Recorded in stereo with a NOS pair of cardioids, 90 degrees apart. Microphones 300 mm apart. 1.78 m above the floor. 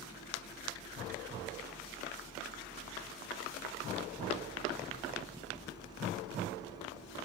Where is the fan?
15° right.